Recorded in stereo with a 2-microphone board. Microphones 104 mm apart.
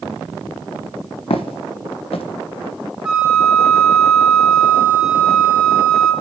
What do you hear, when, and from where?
1.3 s footsteps: 70° left (ahead or behind), 0.6 m
3.0 s a flute: 5° right (ahead or behind), 2.0 m